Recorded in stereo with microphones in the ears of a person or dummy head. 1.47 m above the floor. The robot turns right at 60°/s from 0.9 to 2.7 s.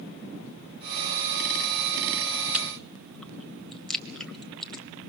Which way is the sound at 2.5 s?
5° right (ahead or behind).